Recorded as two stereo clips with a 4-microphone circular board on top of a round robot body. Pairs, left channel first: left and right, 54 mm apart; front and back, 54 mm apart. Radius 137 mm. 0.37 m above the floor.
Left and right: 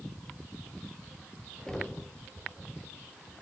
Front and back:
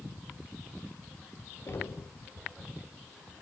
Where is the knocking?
15° left, 1.7 m.